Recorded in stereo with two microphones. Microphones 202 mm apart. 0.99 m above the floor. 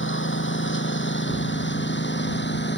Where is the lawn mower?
70° left (ahead or behind); by 2.8 s 60° left (ahead or behind).